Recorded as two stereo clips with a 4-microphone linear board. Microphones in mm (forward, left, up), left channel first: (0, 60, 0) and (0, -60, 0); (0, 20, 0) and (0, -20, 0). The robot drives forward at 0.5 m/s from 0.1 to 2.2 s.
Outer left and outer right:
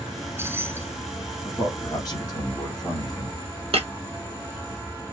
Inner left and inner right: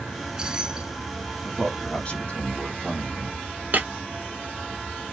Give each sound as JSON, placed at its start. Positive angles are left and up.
{"t": 0.1, "sound": "keys jangling", "side_deg": -20, "distance_m": 0.8}
{"t": 1.4, "sound": "a man speaking", "side_deg": 35, "distance_m": 2.0}
{"t": 3.7, "sound": "breaking glass", "side_deg": -55, "distance_m": 1.0}